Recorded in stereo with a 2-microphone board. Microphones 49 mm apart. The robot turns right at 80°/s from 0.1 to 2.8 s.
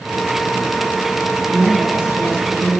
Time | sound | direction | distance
1.5 | a woman speaking | 175° right | 2.0 m